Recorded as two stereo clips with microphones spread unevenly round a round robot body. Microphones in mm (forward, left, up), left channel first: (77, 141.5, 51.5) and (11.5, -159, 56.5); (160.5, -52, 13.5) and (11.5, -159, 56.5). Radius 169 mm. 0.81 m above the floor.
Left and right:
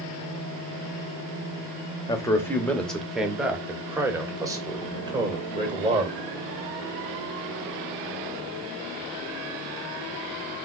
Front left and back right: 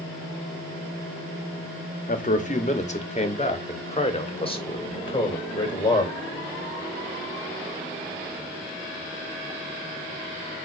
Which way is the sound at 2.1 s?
Straight ahead.